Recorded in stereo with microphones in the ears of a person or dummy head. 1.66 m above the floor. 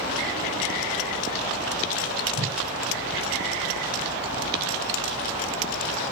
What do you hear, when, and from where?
2.4 s a whoosh: 45° right (ahead or behind), 4.5 m